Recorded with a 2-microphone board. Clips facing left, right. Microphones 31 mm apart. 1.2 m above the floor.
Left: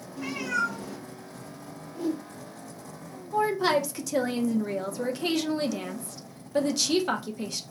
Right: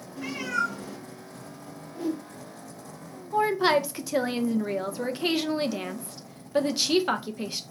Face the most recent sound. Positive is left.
turn(degrees=-25)  # may be behind; listen again after turning